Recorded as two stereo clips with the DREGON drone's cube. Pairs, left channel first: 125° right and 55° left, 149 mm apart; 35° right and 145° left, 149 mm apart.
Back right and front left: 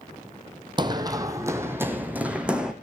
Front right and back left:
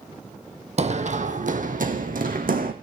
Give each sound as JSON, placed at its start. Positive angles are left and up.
{"t": 0.8, "sound": "running footsteps", "azimuth_deg": 110, "distance_m": 1.5}